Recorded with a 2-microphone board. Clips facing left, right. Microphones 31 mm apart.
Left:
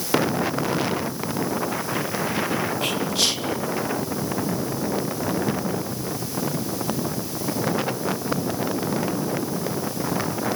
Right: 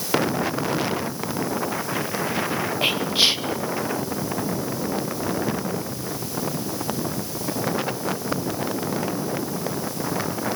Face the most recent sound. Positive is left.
turn(degrees=-25)  # may be behind; listen again after turning